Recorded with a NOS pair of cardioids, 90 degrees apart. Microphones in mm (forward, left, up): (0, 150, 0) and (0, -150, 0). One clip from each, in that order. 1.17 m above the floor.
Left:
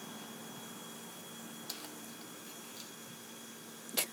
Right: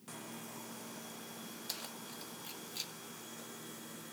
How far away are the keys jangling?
About 1.3 m.